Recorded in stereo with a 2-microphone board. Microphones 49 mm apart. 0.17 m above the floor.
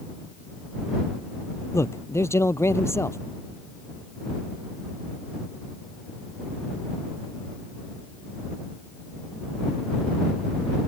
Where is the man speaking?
70° left (ahead or behind).